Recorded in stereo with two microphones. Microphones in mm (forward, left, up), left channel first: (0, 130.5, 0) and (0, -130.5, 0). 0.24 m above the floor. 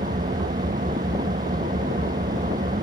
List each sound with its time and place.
0.0 s an engine running: 30° right (ahead or behind)